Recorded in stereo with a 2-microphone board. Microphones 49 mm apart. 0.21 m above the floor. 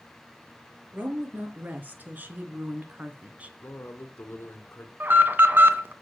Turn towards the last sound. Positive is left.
turn(degrees=-45)  # may be behind; listen again after turning